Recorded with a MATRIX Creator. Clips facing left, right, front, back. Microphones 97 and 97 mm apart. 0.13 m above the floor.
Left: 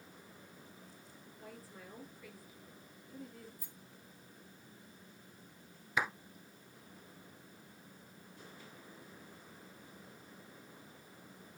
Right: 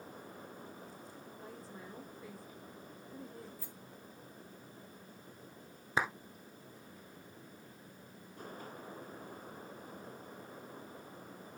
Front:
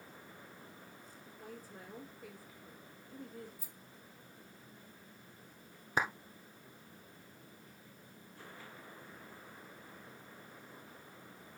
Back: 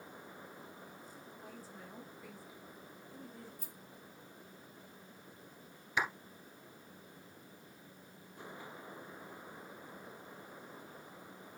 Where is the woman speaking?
30° right, 3.5 m.